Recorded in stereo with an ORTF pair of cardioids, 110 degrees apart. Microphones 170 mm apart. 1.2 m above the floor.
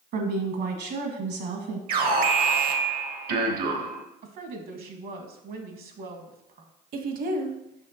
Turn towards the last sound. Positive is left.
turn(degrees=-55)